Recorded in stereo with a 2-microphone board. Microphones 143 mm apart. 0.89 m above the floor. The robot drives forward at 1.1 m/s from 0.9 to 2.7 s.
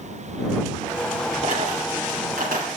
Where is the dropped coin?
55° right (ahead or behind), 3 m; by 2.7 s 75° right (ahead or behind), 2.5 m.